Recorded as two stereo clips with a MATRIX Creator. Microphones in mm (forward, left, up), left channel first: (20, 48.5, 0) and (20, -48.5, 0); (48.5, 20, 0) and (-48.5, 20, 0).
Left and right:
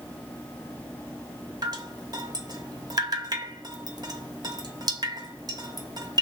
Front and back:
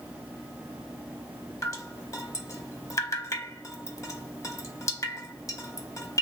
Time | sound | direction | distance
1.6 | dripping | 50° right | 0.8 m